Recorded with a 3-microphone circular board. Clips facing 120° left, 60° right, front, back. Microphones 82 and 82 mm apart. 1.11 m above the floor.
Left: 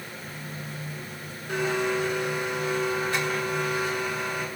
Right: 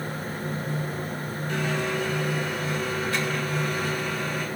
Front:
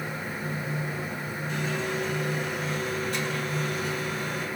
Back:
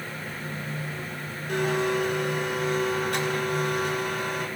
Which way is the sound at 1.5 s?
175° right.